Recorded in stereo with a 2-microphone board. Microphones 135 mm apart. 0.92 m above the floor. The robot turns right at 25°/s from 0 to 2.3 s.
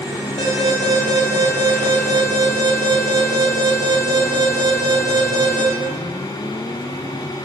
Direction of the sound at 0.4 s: 45° left.